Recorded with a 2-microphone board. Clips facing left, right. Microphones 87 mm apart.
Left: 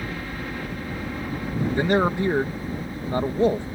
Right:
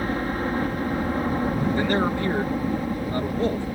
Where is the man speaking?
20° left (ahead or behind).